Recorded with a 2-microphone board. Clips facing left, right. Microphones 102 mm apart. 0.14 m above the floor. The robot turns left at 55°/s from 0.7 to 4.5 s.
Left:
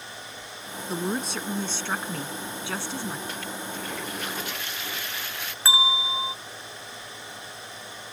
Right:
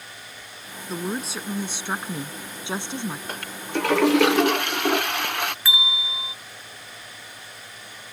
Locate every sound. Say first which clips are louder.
0.9 s a woman speaking: even; 5° left (ahead or behind); by 3.2 s 20° right (ahead or behind)
3.3 s a toilet flushing: right 5 dB; 50° right; by 5.5 s 115° right
5.7 s a bell: left 4 dB; 35° left (ahead or behind)